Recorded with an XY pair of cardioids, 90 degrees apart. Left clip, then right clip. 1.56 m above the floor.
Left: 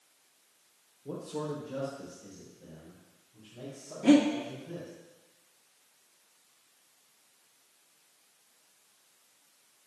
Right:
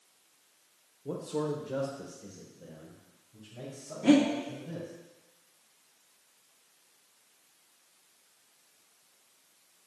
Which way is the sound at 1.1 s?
35° right.